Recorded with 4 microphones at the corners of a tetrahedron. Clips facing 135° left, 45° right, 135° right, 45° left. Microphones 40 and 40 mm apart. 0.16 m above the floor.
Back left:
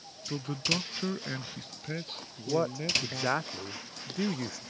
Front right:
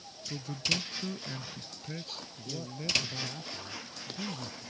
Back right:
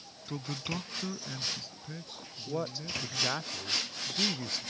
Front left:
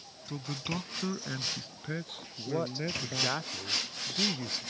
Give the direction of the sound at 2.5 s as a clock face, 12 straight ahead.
8 o'clock.